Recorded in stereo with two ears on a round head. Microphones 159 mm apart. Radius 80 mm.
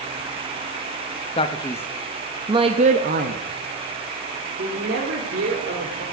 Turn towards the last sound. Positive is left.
turn(degrees=-75)  # may be behind; listen again after turning